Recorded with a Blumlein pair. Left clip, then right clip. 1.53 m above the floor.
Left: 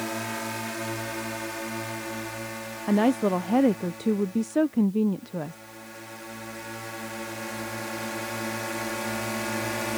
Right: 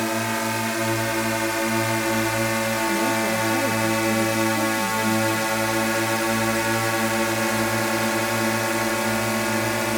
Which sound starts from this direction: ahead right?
A drone, at 0.0 s.